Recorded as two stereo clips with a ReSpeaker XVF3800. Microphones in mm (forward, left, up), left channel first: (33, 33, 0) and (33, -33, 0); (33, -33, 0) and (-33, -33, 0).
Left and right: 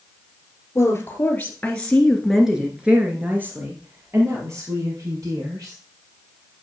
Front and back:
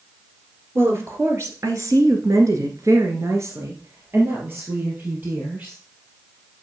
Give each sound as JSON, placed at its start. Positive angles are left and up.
{"t": 0.8, "sound": "a woman speaking", "azimuth_deg": 135, "distance_m": 2.5}